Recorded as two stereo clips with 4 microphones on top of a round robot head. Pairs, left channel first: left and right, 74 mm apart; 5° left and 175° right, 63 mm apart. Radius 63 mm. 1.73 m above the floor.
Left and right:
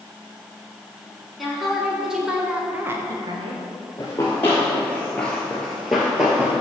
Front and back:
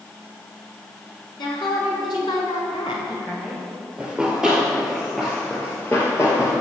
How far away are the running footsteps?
About 1.9 m.